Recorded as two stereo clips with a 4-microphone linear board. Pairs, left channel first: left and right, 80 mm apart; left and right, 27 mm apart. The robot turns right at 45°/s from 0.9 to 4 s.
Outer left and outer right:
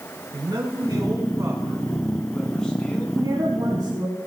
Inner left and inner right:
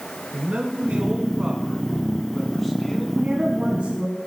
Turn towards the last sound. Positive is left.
turn(degrees=-60)